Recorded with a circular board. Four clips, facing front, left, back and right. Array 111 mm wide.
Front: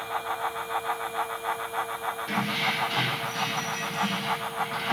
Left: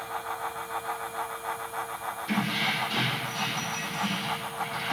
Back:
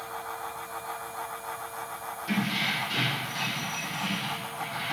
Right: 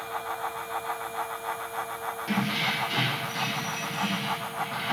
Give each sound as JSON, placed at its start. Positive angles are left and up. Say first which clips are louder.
{"t": 2.3, "sound": "keys jangling", "louder": "even, back 1 dB", "azimuth_deg": -75, "distance_m": 6.0}